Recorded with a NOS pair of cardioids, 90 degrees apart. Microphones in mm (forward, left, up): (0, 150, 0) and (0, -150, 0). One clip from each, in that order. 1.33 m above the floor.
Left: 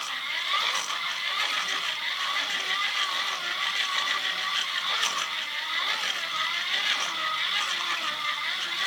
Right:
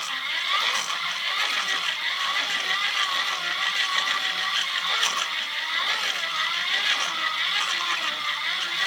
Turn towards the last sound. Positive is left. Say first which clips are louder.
# right 3 dB
turn(degrees=-20)